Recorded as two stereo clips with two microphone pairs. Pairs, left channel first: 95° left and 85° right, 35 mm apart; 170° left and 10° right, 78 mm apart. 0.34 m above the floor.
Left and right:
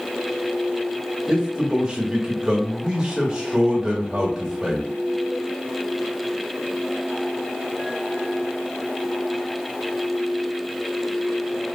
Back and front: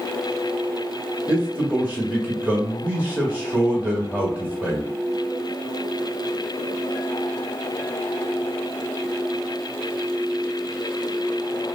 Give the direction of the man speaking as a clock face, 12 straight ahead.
2 o'clock.